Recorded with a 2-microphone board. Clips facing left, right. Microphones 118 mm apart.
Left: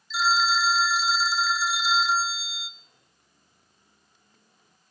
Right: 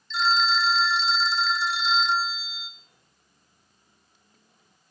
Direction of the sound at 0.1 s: 5° left (ahead or behind).